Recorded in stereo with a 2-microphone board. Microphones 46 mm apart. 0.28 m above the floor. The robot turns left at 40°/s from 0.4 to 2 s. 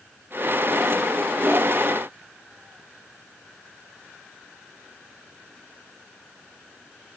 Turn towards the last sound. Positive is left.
No sound to turn to.